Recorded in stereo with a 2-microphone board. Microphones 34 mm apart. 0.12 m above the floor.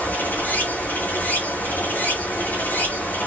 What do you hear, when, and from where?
0.0 s running water: 80° left, 3 m